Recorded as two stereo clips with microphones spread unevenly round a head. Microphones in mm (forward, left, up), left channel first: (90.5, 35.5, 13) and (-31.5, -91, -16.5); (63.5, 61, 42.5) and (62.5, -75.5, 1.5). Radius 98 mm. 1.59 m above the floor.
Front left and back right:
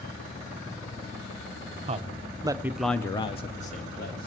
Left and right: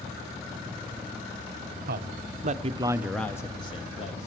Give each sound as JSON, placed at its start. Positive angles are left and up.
{"t": 1.9, "sound": "a man speaking", "azimuth_deg": -80, "distance_m": 0.8}